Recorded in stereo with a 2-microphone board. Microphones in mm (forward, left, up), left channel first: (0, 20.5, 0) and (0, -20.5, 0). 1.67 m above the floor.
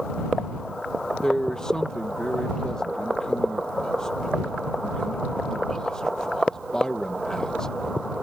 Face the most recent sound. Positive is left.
turn(degrees=15)  # may be behind; listen again after turning